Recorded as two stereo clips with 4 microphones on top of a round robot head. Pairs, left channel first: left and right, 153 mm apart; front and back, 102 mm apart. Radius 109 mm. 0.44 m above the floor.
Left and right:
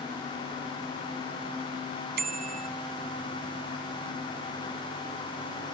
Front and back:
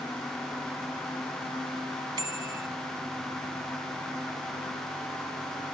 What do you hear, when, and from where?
2.2 s a bicycle bell: 120° right